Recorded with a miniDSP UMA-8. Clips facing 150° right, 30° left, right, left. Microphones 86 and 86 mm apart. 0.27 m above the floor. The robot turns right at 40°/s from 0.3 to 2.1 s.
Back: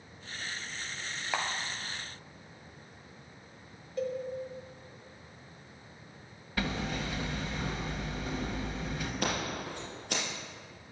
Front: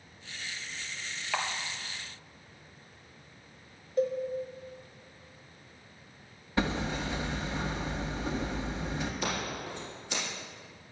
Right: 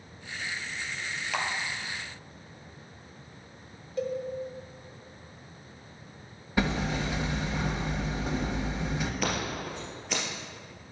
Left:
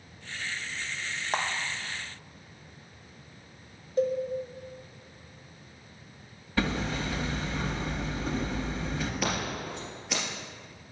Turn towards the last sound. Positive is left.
turn(degrees=175)